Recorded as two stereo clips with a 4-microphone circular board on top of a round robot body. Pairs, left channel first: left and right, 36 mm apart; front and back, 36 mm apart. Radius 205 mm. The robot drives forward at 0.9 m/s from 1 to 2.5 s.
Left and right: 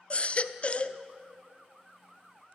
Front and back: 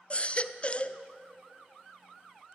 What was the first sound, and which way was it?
A baby crying, 45° left.